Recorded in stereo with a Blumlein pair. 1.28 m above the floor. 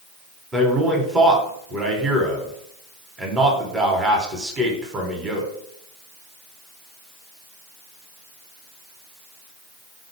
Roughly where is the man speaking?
Ahead.